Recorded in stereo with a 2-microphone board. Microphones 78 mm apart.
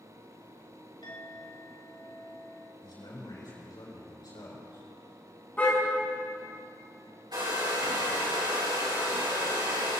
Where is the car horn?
20° left (ahead or behind), 5.5 m.